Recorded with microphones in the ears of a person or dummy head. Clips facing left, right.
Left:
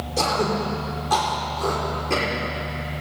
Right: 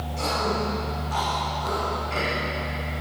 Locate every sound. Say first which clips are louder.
0.2 s throat clearing: left 4 dB; 85° left, 6 m